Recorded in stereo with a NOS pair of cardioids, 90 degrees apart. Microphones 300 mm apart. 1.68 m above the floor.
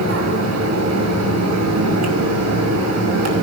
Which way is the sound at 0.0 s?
65° right.